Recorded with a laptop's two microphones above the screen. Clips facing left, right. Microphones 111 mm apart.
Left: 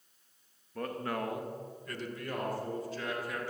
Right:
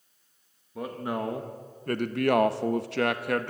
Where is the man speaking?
10° right (ahead or behind), 0.9 m; by 3.5 s 65° right (ahead or behind), 1.2 m.